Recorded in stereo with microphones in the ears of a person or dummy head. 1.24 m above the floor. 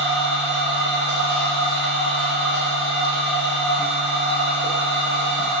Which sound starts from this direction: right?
A machine running, at 0.0 s.